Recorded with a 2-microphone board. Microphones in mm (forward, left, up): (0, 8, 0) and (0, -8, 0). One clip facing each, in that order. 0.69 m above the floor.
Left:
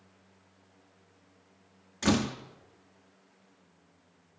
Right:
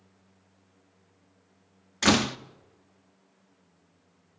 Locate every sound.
2.0 s a door slam: 45° right (ahead or behind), 0.6 m